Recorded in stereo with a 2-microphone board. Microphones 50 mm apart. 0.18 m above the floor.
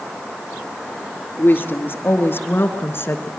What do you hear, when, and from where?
1.4 s a woman speaking: 45° left (ahead or behind), 3 m; by 3.3 s 55° left (ahead or behind), 2 m